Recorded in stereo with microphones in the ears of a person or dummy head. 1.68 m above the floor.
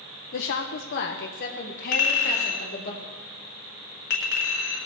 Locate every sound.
0.3 s a woman speaking: 55° left (ahead or behind), 0.7 m; by 2.9 s 40° left (ahead or behind), 2.5 m
1.9 s a clink: 55° left (ahead or behind), 2 m